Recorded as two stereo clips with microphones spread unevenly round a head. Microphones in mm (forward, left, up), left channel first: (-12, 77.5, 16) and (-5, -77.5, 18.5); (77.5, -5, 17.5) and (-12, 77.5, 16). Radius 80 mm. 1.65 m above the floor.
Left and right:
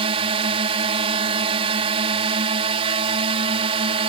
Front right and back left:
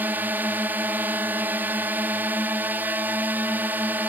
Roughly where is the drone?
Behind right.